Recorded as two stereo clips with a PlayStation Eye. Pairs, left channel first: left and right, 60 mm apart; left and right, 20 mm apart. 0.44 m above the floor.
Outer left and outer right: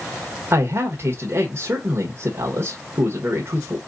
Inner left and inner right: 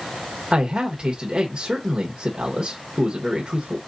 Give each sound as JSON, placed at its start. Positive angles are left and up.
{"t": 0.5, "sound": "a man speaking", "side_deg": -45, "distance_m": 1.0}